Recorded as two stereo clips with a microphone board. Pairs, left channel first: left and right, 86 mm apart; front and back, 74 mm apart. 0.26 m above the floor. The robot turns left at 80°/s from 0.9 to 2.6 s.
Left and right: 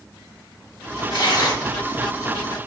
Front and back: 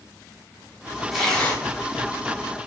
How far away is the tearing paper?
About 1.9 m.